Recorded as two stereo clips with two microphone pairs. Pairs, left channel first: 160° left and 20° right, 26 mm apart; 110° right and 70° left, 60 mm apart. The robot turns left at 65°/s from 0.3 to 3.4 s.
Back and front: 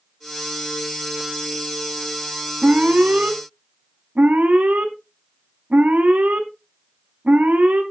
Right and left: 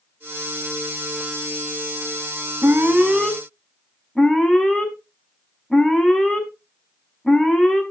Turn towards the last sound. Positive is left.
turn(degrees=-35)